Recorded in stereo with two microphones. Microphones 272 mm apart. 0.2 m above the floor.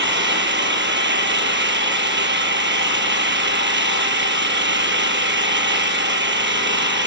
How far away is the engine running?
About 1.4 m.